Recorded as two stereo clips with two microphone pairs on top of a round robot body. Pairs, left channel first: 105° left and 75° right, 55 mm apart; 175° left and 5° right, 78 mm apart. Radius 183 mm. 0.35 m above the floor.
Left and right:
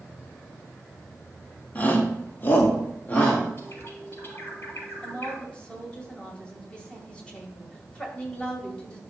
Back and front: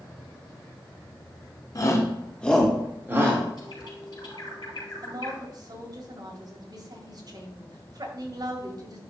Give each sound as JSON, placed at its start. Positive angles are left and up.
{"t": 1.8, "sound": "a shout", "azimuth_deg": 160, "distance_m": 1.9}
{"t": 3.6, "sound": "a bird", "azimuth_deg": 145, "distance_m": 4.0}
{"t": 5.0, "sound": "a woman speaking", "azimuth_deg": 35, "distance_m": 2.0}